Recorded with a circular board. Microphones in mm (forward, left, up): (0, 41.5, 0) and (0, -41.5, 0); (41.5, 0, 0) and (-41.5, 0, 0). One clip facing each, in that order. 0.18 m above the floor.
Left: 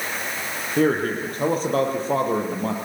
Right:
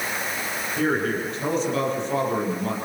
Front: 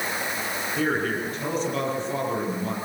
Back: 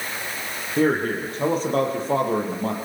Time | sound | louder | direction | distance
0.8 | a man speaking | left 4 dB, back 5 dB | 130° left | 6 m